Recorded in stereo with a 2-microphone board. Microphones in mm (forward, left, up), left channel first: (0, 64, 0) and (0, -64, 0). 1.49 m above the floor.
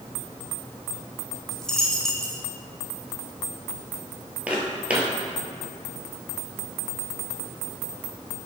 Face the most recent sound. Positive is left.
turn(degrees=-10)  # may be behind; listen again after turning